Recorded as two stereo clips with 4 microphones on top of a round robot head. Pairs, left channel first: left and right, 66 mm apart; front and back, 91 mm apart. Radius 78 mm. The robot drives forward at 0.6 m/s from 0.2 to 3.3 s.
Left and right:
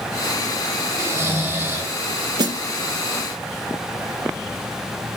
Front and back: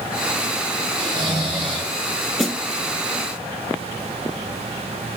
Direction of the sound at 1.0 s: 135° right.